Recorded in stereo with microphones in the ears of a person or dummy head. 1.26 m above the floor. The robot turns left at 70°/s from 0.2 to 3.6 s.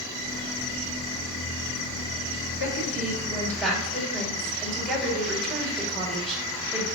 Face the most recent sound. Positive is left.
turn(degrees=5)